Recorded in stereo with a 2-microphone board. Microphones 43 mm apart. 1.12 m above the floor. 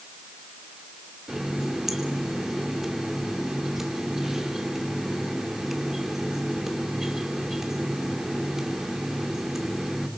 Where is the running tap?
10° right (ahead or behind), 2 m.